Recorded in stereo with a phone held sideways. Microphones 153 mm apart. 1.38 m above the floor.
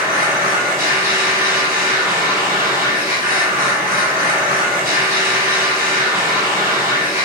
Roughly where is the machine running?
Centre.